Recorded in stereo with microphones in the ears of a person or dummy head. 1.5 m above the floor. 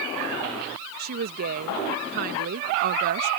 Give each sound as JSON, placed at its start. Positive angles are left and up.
{"t": 1.0, "sound": "a woman speaking", "side_deg": -50}